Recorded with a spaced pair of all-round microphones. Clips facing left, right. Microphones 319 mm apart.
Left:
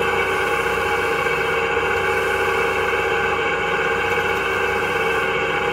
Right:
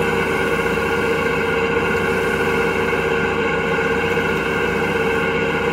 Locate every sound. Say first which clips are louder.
0.0 s an engine running: right 3 dB; 50° right (ahead or behind), 3.5 m